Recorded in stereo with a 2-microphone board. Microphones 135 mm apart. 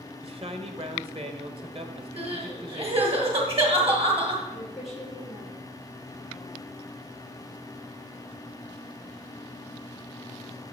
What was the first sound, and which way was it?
A man speaking, 45° right (ahead or behind).